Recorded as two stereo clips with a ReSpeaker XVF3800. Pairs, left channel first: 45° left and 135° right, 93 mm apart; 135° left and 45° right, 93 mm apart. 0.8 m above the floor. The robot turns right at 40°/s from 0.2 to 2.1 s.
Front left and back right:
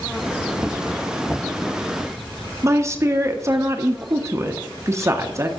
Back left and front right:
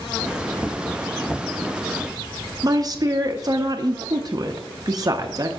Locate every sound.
2.6 s a woman speaking: 85° right, 0.6 m